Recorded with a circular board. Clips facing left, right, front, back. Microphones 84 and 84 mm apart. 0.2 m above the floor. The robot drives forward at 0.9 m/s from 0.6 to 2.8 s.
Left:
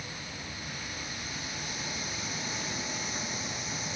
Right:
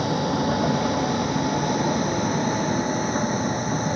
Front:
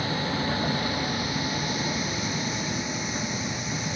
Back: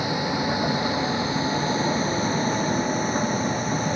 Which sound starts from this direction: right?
A vehicle, at 0.0 s.